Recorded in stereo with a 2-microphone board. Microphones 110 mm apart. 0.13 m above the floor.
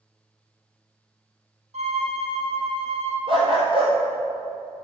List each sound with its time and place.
1.7 s a violin: 75° right (ahead or behind), 2.5 m
3.3 s a dog barking: 55° right (ahead or behind), 2 m